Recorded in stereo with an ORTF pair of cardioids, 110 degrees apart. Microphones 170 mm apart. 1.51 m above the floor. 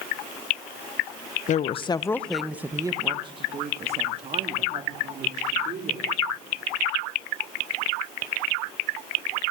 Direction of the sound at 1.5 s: 50° left.